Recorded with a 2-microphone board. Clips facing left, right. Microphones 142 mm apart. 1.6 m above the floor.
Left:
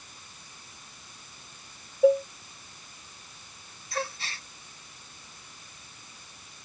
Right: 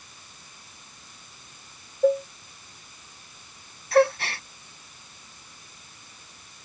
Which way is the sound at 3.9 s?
65° right (ahead or behind).